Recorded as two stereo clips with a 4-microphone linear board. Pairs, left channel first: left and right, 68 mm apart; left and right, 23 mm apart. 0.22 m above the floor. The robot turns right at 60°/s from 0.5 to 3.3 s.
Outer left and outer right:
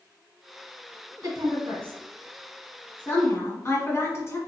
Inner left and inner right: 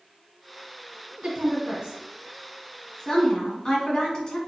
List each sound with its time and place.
1.2 s a woman speaking: 55° right (ahead or behind), 1.8 m; by 4.4 s 35° left (ahead or behind), 1.8 m